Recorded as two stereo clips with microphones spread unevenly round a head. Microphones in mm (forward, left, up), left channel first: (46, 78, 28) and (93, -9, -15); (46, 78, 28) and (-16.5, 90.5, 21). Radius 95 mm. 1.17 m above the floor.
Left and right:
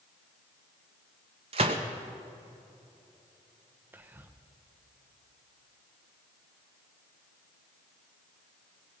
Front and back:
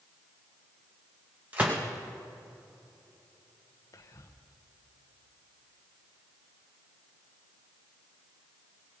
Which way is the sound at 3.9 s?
30° right.